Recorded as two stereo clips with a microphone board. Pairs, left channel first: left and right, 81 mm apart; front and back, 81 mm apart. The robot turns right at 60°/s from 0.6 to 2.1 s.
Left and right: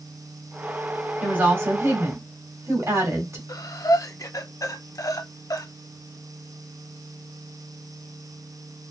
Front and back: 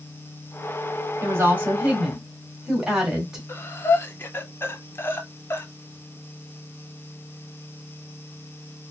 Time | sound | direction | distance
1.2 | a woman speaking | 155° right | 1.8 m
3.5 | breathing | 55° left | 0.7 m